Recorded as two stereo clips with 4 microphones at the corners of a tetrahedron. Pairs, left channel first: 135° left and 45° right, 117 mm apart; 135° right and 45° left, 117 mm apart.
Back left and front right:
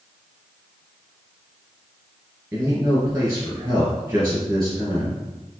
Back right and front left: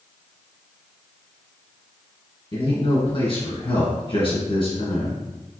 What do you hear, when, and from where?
2.5 s a man speaking: 120° right, 1.9 m